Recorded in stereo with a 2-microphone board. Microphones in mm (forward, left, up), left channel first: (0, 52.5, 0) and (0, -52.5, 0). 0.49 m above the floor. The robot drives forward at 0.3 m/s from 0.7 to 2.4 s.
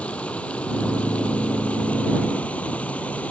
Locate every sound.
0.0 s running water: 10° left (ahead or behind); by 3.3 s 15° left (ahead or behind)